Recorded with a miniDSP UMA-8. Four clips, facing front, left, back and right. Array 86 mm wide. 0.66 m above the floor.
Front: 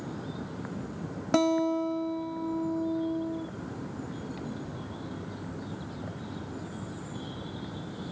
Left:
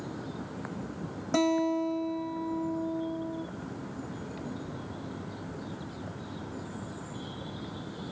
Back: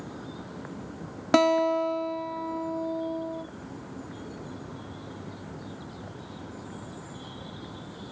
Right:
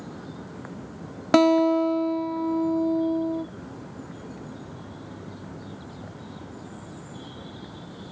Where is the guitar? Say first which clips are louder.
Right 9 dB, back 3 dB; 115° right, 0.6 m.